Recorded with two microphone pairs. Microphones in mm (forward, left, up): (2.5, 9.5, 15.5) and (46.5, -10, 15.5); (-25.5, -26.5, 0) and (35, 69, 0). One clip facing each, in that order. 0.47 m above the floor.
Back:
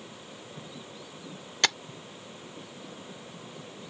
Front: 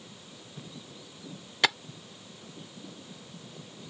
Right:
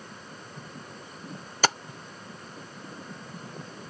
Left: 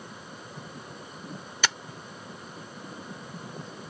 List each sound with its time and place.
1.6 s tapping: 100° right